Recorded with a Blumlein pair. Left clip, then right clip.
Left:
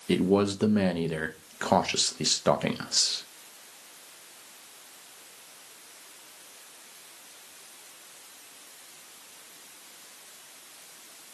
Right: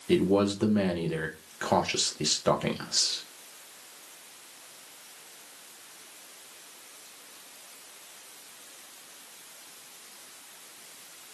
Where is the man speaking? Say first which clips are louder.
Even; 10° left, 0.6 m.